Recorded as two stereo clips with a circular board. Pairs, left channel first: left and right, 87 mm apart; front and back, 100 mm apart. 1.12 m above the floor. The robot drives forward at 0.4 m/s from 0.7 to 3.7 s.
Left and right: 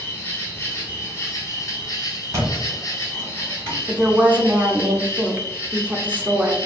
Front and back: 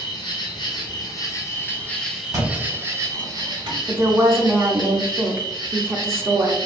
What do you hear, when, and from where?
0.0 s an insect: 30° left, 0.8 m; by 6.7 s 150° left, 0.8 m
2.3 s a thud: 135° right, 1.4 m; by 3.8 s 150° right, 1.8 m
3.9 s a woman speaking: 145° right, 0.5 m